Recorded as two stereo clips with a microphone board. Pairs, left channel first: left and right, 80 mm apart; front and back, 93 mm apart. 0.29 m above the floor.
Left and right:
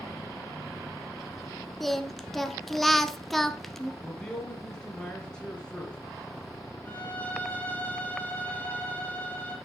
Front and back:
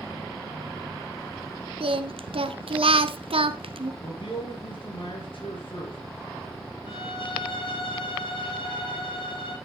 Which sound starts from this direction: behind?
Singing, at 1.8 s.